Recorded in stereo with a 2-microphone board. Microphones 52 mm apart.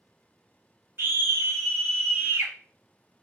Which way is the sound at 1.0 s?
50° right (ahead or behind).